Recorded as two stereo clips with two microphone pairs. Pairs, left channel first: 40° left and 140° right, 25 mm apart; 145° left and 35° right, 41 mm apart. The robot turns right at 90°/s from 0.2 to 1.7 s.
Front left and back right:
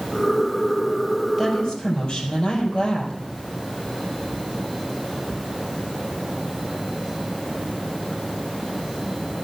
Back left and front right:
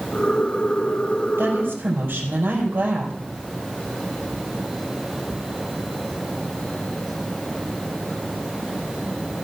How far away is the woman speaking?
About 4 m.